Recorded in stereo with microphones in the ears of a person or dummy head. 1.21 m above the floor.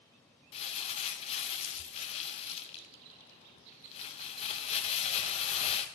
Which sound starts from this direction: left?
Crumpling, at 0.5 s.